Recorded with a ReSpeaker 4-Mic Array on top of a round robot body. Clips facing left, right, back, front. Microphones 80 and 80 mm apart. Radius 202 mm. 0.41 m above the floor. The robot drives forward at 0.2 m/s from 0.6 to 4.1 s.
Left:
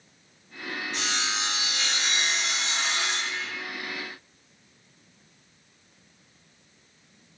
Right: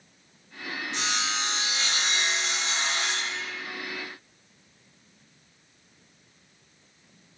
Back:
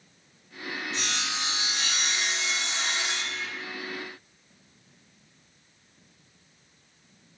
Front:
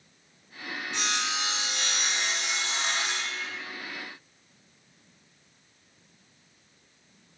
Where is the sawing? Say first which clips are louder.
Right 1 dB, front 5 dB; 25° right, 1.2 m; by 3.5 s 40° right, 0.8 m.